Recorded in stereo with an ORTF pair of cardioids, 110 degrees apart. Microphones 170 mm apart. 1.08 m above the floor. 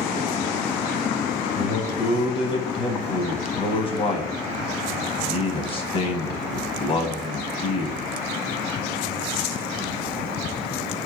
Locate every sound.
1.6 s a man speaking: 40° left, 0.6 m